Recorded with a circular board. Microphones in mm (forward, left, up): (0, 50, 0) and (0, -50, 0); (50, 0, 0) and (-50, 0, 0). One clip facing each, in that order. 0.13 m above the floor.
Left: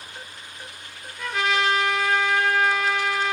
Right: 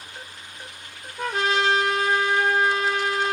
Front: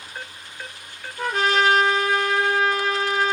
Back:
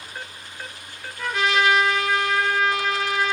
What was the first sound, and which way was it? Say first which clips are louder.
A trumpet: right 1 dB, front 1 dB; 40° right.